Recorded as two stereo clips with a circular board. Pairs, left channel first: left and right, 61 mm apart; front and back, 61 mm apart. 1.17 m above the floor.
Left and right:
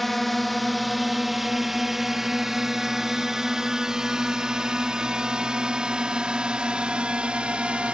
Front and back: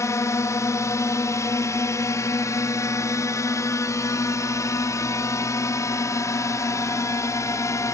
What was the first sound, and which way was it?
A drone, straight ahead.